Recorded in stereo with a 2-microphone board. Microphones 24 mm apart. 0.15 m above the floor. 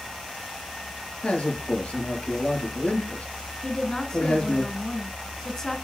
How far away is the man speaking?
About 3.5 m.